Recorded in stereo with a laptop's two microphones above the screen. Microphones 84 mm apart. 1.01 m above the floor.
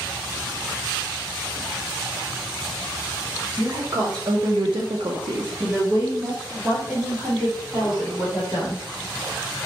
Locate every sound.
3.6 s a woman speaking: 25° right (ahead or behind), 0.8 m; by 8.8 s 10° right (ahead or behind), 2.5 m